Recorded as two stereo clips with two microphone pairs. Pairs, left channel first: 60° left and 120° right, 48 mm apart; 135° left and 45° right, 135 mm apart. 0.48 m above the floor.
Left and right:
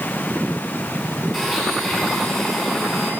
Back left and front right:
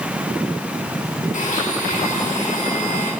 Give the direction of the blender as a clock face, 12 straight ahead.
7 o'clock.